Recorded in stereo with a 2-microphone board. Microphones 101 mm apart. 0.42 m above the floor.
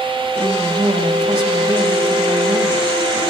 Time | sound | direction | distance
0.4 | a woman speaking | 65° right (ahead or behind) | 3 m